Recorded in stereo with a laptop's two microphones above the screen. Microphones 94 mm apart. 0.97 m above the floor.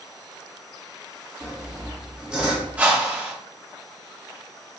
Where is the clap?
I don't hear a clap.